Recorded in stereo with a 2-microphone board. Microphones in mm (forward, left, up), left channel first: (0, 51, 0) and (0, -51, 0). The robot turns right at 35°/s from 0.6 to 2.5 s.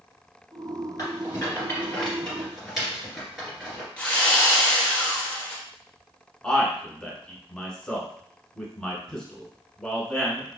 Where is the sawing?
10° left (ahead or behind), 1.5 m.